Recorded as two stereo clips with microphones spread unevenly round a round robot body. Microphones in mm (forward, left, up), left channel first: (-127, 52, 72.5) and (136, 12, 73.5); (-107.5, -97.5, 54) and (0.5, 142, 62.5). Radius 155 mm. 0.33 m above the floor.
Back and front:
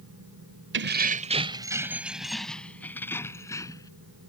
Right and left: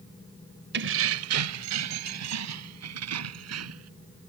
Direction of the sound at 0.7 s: 25° left.